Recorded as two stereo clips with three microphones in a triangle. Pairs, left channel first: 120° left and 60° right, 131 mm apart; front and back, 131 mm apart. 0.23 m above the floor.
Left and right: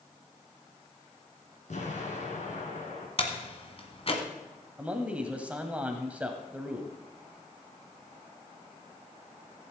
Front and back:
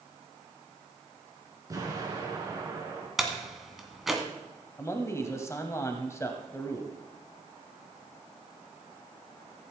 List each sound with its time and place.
1.7 s an explosion: 120° left, 3 m
3.2 s a door slam: 90° left, 1.3 m
4.8 s a man speaking: straight ahead, 1.1 m